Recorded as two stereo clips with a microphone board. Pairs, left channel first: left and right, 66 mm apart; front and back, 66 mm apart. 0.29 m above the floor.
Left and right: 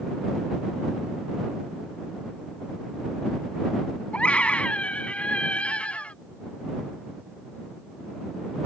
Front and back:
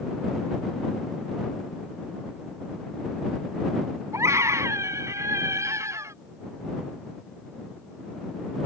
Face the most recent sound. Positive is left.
turn(degrees=155)